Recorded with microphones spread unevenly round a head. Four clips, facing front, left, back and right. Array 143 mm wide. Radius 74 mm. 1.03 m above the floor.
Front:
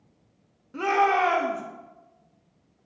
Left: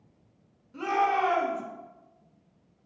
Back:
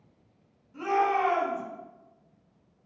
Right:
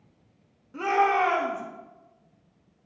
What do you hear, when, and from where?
0.7 s a shout: 25° right, 1.8 m